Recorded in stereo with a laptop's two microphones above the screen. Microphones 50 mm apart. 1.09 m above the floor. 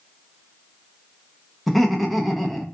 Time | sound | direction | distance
1.7 | laughter | 5° left (ahead or behind) | 0.5 m